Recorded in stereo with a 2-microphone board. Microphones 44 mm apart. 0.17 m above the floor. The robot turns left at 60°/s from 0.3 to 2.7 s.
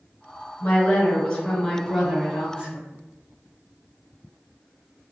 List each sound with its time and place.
0.6 s a woman speaking: 65° left, 1.6 m; by 2.8 s 60° right, 1.6 m